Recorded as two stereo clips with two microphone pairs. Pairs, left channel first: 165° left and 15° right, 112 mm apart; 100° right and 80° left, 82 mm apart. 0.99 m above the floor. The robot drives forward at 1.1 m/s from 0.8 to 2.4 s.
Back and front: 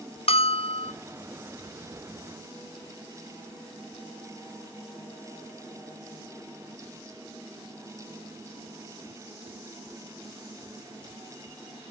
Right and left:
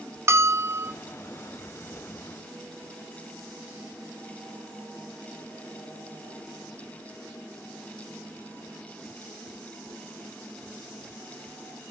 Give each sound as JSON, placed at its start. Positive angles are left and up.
{"t": 0.3, "sound": "a bell", "azimuth_deg": 135, "distance_m": 0.5}